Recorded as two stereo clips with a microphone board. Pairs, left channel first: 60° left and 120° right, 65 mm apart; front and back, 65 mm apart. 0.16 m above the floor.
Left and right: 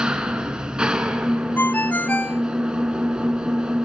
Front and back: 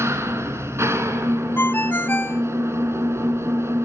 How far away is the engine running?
About 1.8 m.